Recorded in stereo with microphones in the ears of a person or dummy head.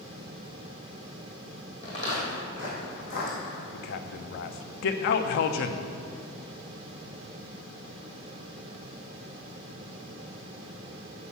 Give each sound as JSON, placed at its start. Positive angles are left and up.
{"t": 1.8, "sound": "footsteps", "side_deg": 35, "distance_m": 4.5}
{"t": 3.7, "sound": "a man speaking", "side_deg": 50, "distance_m": 0.8}